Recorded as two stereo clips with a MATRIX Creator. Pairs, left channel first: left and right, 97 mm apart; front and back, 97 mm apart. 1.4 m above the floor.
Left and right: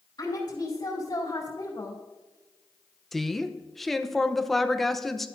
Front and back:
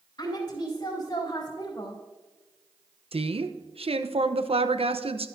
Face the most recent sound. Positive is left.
turn(degrees=180)